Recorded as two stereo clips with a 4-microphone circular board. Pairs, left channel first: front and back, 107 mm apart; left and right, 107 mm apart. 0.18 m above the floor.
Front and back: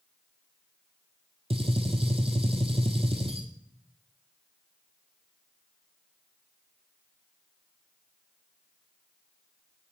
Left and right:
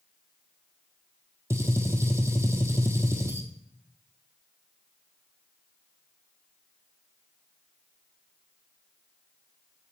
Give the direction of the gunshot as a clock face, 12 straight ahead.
5 o'clock.